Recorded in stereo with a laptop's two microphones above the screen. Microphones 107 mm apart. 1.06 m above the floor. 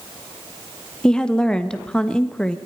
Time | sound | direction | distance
1.0 | a woman speaking | 5° left (ahead or behind) | 1.3 m